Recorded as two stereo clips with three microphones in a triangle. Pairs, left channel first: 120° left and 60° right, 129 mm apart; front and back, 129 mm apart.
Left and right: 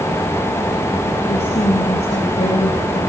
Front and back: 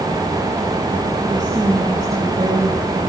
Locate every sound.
1.3 s a woman speaking: 125° left, 2.5 m